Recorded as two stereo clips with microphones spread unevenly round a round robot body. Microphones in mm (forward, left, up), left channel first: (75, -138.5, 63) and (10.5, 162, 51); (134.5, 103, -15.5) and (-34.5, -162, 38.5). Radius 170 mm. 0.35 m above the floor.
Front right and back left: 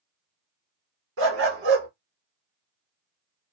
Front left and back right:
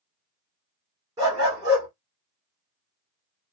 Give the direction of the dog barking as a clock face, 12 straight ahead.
7 o'clock.